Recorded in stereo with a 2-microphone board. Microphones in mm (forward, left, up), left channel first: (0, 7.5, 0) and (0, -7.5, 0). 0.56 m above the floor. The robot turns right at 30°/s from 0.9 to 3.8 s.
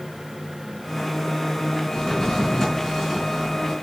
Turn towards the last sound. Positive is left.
turn(degrees=-165)